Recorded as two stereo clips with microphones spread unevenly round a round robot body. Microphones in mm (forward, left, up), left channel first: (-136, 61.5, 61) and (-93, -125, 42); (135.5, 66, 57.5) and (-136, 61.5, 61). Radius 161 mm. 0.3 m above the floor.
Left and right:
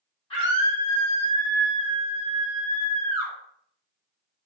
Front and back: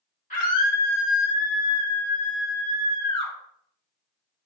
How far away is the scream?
About 1.4 m.